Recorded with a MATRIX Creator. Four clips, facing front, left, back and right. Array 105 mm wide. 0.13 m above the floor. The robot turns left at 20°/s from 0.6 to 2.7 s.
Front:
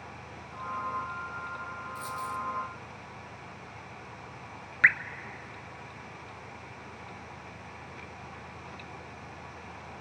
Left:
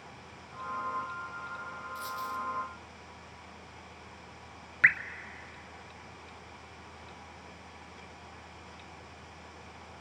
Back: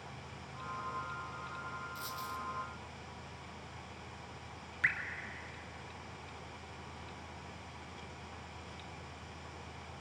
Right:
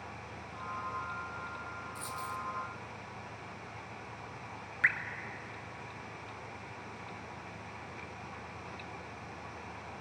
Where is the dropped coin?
140° left, 0.9 m; by 2.4 s 130° left, 0.9 m.